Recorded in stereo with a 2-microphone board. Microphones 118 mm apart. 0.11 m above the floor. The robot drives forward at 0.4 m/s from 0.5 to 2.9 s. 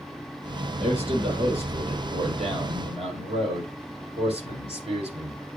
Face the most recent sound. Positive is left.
turn(degrees=-55)  # may be behind; listen again after turning